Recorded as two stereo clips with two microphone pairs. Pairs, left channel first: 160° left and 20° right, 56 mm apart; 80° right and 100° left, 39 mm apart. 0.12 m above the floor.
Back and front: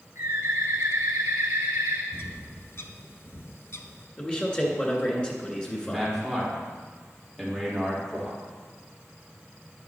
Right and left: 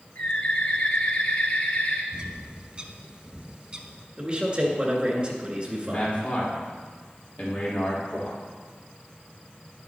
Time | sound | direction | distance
0.1 | a bird | 50° right | 2 m
2.1 | a bird | 165° left | 0.7 m
4.2 | a man speaking | 120° left | 1.9 m
5.8 | a man speaking | 115° right | 3.5 m